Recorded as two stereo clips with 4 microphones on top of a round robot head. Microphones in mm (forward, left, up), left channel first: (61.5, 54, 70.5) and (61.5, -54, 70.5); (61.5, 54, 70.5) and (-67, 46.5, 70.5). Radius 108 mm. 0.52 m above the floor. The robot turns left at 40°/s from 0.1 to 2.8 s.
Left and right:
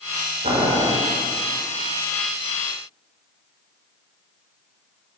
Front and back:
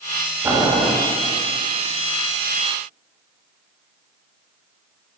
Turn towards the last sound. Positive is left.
turn(degrees=160)